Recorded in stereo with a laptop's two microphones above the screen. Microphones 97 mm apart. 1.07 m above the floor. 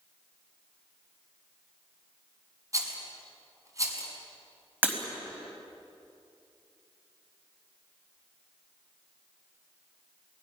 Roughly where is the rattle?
Right.